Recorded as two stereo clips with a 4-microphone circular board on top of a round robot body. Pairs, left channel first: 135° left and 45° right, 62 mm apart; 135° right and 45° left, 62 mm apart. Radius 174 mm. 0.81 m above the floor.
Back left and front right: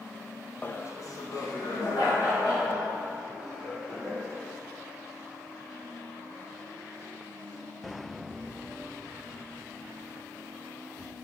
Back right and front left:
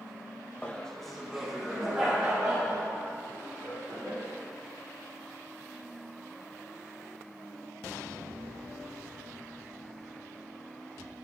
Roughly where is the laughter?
Behind.